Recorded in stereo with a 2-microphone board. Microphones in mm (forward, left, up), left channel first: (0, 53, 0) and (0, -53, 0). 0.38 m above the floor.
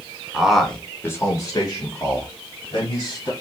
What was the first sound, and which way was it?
A man speaking, 5° right (ahead or behind).